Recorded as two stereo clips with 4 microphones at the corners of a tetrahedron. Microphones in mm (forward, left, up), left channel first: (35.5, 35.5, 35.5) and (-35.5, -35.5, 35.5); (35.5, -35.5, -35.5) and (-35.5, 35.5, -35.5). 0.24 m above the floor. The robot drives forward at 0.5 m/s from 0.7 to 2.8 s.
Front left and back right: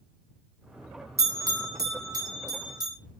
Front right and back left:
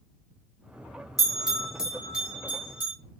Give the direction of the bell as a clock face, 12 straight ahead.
4 o'clock.